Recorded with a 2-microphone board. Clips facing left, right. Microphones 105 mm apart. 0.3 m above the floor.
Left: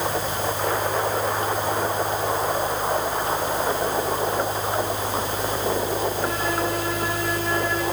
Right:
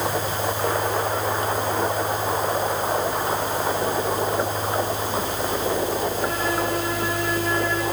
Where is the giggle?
I don't hear a giggle.